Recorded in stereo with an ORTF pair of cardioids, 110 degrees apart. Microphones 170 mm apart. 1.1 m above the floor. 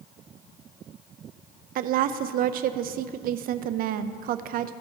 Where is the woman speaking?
65° right, 0.6 m.